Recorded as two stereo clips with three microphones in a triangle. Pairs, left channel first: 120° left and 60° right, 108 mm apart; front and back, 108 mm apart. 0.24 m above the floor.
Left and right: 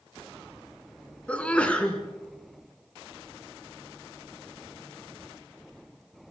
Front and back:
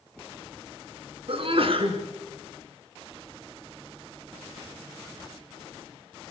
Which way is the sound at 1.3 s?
165° right.